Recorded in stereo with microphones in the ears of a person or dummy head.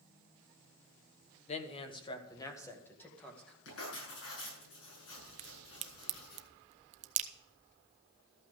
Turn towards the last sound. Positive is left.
turn(degrees=-40)  # may be behind; listen again after turning